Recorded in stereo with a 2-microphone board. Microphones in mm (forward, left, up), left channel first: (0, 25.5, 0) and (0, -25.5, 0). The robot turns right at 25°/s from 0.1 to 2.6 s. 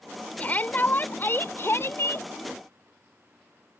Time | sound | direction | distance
0.4 | a shout | 35° left | ?